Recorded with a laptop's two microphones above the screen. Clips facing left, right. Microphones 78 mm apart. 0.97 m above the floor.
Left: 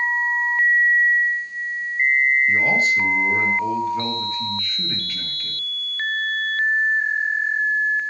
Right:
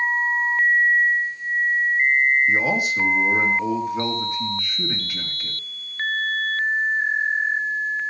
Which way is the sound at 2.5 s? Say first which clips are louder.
Left 2 dB; 15° right (ahead or behind).